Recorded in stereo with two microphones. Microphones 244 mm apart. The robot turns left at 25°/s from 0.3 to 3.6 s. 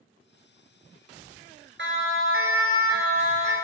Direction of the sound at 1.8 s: 50° right (ahead or behind).